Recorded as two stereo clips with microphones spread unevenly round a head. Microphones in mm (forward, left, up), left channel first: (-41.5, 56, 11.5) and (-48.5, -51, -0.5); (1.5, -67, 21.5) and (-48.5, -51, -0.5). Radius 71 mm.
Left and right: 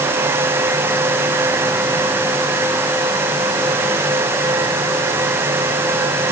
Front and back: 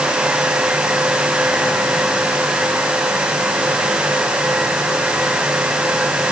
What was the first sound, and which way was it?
Only background noise.